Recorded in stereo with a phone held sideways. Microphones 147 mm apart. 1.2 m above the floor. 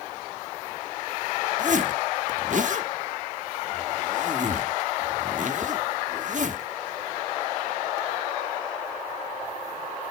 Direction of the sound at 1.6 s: 60° right (ahead or behind).